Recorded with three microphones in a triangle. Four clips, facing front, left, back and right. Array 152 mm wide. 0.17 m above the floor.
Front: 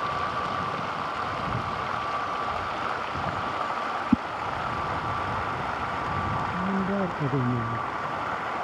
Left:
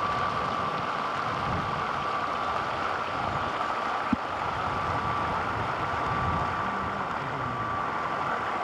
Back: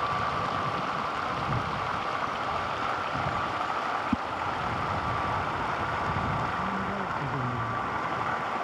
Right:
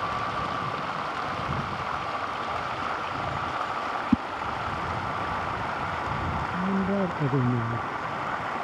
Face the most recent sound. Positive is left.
turn(degrees=-55)